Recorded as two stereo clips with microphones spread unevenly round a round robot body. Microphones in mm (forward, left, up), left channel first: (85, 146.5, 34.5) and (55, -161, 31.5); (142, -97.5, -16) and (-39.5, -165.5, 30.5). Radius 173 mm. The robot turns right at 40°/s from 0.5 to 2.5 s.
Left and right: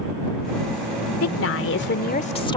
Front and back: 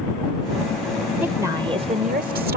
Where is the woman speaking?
105° left; by 2.6 s 155° left.